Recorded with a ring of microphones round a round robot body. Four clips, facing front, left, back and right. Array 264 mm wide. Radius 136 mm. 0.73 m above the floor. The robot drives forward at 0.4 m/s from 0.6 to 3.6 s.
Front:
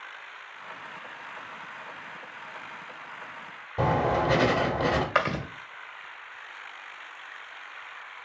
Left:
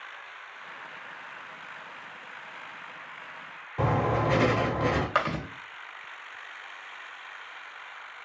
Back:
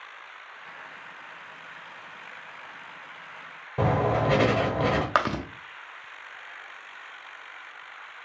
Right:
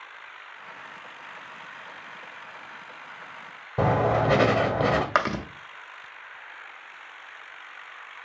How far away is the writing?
About 0.9 m.